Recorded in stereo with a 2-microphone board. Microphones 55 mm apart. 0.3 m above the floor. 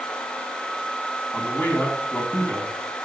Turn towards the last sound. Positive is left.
turn(degrees=30)  # may be behind; listen again after turning